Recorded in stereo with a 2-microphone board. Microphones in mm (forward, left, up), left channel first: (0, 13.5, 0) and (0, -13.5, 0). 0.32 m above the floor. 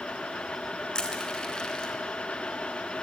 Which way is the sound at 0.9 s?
30° left (ahead or behind).